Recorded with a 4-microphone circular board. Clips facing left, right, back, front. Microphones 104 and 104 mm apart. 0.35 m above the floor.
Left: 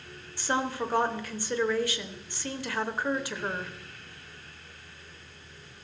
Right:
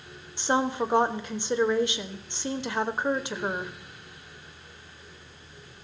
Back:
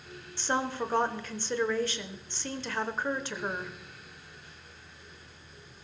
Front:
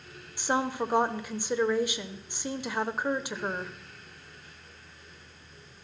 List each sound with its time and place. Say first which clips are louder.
0.4 s a woman speaking: right 4 dB, front 2 dB; 60° right, 1.0 m